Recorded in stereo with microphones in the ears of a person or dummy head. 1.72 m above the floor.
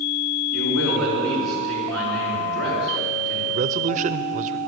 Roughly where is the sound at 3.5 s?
Right.